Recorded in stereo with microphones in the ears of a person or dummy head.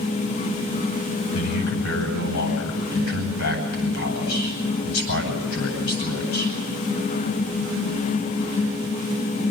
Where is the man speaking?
70° left (ahead or behind), 8.5 m.